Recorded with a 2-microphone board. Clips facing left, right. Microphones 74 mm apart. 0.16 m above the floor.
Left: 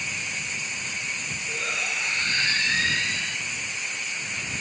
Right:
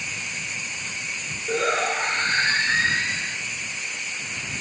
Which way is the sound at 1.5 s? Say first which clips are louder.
Right 9 dB; 50° right (ahead or behind).